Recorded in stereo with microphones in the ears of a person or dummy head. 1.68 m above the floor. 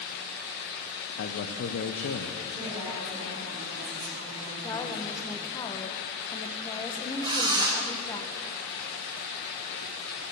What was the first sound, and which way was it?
A man speaking, 65° left (ahead or behind).